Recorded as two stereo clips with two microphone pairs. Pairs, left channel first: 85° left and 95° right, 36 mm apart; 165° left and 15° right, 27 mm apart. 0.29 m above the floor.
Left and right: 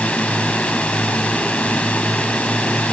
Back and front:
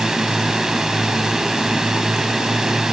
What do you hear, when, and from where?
0.0 s a drone: 50° left